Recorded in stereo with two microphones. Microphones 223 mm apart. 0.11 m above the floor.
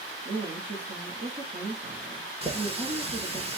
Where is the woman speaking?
45° right (ahead or behind), 1.4 m.